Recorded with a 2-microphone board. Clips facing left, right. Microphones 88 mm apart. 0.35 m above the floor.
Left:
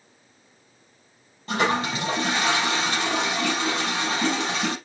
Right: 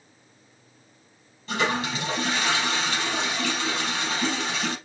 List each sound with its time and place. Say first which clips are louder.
1.5 s a toilet flushing: left 3 dB; 45° left (ahead or behind), 4.5 m